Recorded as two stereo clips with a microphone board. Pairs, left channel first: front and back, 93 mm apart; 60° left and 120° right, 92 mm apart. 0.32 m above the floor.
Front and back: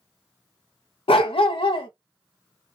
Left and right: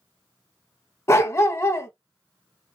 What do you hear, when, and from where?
1.1 s a dog barking: straight ahead, 0.6 m